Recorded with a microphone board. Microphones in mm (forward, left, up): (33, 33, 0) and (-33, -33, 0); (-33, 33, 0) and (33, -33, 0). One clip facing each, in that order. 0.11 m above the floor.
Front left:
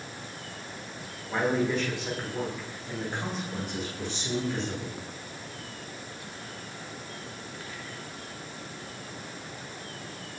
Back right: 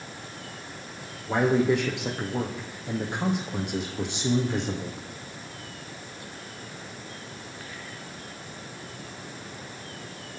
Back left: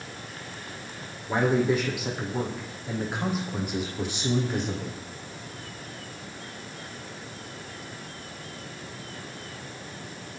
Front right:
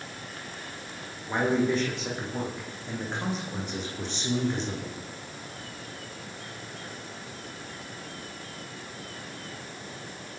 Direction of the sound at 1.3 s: 145° right.